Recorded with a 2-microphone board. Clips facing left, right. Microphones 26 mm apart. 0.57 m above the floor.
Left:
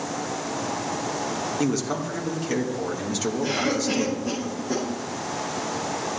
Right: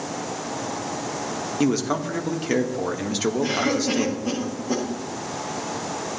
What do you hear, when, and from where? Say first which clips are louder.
1.6 s a man speaking: right 5 dB; 25° right (ahead or behind), 1.3 m
3.4 s a cough: even; 10° right (ahead or behind), 6 m